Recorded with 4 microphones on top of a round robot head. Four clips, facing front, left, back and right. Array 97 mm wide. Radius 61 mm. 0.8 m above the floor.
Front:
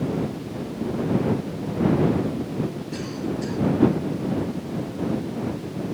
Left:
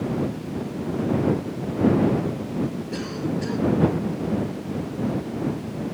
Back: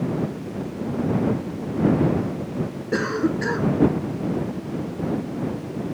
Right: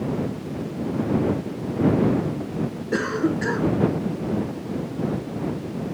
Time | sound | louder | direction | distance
2.9 | a cough | right 5 dB, back 6 dB | 140° right | ?